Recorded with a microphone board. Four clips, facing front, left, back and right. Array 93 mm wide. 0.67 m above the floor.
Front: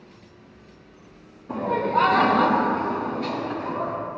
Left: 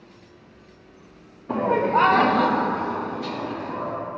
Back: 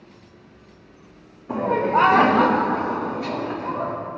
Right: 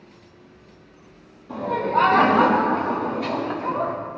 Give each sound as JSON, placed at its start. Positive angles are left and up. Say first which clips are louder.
{"t": 1.5, "sound": "laughter", "louder": "left 2 dB, back 3 dB", "azimuth_deg": 110, "distance_m": 0.6}